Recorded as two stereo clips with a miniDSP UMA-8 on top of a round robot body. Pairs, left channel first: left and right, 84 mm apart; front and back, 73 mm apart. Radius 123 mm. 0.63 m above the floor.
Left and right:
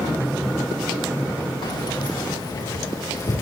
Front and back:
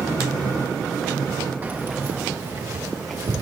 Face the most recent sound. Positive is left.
turn(degrees=145)